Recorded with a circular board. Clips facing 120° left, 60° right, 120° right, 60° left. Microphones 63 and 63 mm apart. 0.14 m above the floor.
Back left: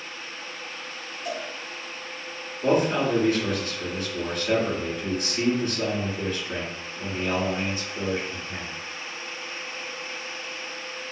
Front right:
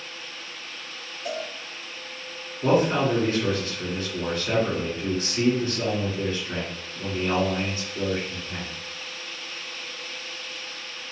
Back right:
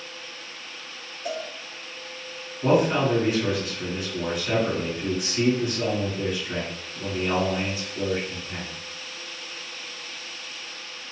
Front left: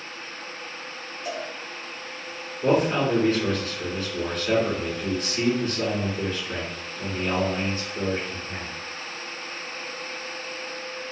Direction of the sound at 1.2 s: 95° right.